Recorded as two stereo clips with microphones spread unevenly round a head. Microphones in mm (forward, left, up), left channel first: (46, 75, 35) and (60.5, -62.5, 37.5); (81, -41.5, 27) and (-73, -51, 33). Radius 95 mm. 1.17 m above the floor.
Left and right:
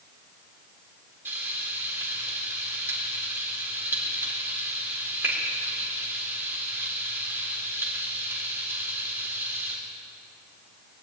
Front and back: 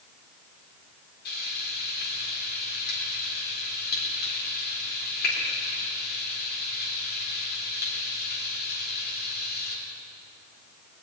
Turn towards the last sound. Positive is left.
turn(degrees=-10)